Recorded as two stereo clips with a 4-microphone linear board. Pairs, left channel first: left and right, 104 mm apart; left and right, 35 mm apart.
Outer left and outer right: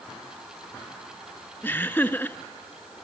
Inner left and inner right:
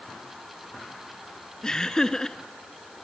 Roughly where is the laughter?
Centre.